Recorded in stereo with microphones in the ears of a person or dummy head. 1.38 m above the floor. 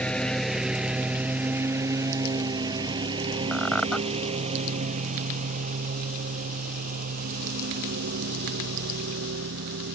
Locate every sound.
0.0 s a lawn mower: 5° left (ahead or behind); by 10.0 s 55° right (ahead or behind)
3.5 s a squeak: centre (ahead or behind)